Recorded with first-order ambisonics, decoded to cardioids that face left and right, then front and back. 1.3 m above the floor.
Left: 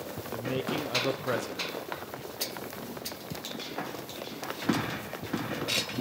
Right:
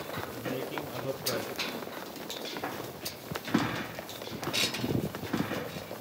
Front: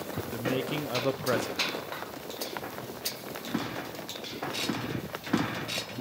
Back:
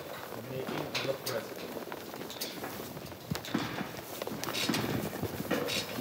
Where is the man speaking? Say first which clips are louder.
Left 7 dB, front 7 dB; 25° left, 0.8 m.